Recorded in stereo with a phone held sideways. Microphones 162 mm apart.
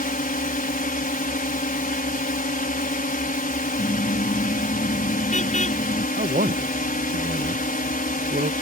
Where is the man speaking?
60° right (ahead or behind).